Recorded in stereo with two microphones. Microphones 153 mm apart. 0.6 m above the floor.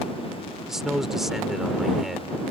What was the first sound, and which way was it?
A man speaking, centre (ahead or behind).